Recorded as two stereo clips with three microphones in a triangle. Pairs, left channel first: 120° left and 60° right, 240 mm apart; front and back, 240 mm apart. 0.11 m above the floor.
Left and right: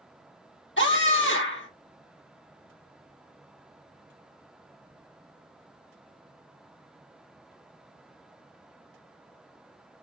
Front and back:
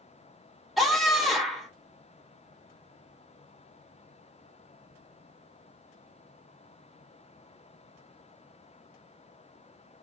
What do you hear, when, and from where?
0.8 s a scream: 90° left, 2.5 m